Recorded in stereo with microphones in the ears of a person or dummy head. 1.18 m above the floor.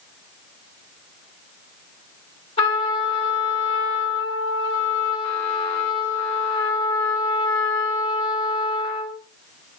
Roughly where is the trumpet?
Left.